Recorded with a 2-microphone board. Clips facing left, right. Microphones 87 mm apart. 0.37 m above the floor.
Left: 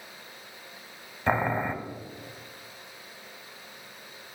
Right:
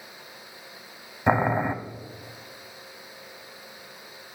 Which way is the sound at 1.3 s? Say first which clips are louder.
Right 4 dB; 20° right (ahead or behind).